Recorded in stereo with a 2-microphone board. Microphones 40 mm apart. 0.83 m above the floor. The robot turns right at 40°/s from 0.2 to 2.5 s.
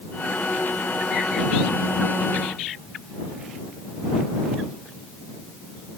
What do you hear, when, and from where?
Only background noise.